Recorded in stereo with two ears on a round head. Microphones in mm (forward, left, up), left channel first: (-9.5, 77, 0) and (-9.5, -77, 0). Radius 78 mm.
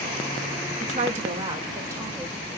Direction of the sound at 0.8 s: 45° right (ahead or behind).